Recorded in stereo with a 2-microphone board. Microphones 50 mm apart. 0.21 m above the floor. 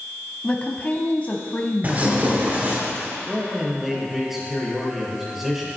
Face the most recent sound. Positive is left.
turn(degrees=-5)  # may be behind; listen again after turning